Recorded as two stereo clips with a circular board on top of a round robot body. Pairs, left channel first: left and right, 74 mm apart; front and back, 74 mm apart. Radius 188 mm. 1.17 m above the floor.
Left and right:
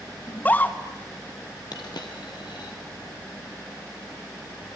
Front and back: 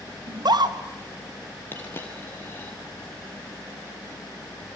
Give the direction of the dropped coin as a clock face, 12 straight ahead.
10 o'clock.